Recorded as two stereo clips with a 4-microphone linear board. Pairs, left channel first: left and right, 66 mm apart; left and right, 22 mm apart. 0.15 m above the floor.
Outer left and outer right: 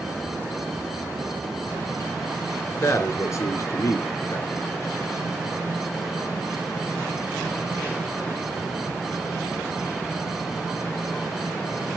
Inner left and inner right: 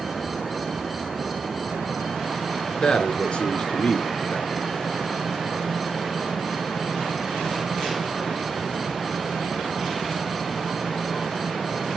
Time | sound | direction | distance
2.8 | a man speaking | 40° left (ahead or behind) | 1.6 m